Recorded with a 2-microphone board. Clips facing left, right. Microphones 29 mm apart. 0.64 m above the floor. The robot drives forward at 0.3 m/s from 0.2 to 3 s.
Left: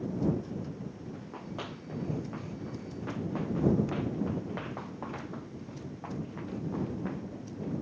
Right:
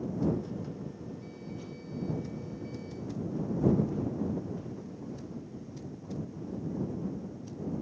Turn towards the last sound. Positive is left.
turn(degrees=70)  # may be behind; listen again after turning